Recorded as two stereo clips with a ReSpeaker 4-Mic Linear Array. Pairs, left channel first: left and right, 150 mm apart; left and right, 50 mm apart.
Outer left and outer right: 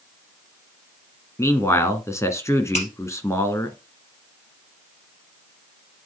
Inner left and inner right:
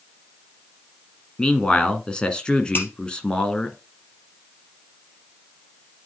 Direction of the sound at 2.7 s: 50° left (ahead or behind).